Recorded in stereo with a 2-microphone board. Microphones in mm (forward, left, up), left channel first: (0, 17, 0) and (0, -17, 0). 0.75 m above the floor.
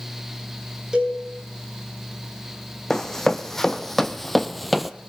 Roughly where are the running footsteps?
Centre.